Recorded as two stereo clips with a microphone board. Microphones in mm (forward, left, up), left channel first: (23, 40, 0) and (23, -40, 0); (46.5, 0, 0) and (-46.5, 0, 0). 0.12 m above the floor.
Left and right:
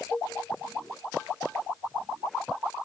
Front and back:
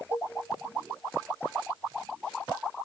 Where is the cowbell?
30° left, 0.7 m.